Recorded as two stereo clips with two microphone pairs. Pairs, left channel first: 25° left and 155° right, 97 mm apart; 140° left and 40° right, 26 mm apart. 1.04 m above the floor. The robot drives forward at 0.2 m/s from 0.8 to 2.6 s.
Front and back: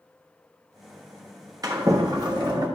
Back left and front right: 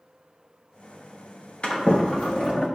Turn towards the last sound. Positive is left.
turn(degrees=165)